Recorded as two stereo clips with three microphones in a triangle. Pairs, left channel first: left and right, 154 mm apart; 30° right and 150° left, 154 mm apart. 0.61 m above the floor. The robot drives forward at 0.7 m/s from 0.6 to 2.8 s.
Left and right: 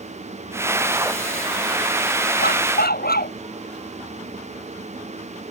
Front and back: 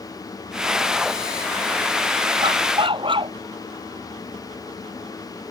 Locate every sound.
2.4 s a dog barking: 90° left